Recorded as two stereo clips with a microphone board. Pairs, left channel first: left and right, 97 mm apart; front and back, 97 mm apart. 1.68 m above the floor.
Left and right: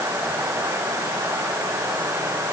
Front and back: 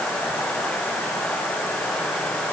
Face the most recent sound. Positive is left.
No sound to turn to.